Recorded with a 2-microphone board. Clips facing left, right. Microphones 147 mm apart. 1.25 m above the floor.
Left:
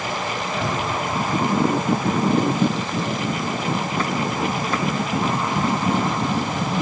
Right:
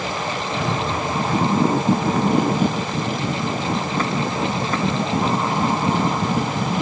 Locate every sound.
0.6 s a cupboard door: 10° right (ahead or behind), 1.6 m